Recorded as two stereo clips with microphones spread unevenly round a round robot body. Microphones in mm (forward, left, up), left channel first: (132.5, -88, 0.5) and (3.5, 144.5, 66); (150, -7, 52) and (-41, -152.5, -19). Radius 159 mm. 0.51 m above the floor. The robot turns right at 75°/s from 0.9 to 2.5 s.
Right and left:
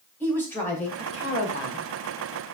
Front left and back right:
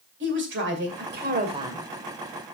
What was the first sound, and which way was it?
A woman speaking, 135° right.